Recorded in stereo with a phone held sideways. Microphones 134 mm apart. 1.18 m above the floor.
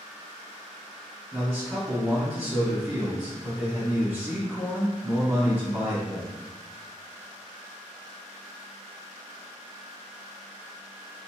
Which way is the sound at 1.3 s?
10° right (ahead or behind).